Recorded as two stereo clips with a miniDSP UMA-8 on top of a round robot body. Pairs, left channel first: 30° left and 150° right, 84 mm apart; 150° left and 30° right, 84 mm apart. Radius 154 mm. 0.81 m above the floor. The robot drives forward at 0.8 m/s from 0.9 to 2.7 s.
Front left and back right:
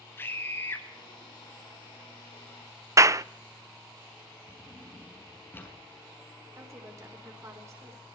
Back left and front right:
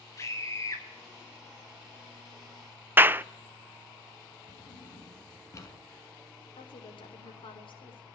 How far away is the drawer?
About 6.5 m.